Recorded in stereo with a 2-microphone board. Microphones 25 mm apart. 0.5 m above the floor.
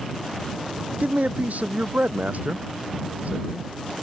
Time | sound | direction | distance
1.0 | a man speaking | 85° right | ?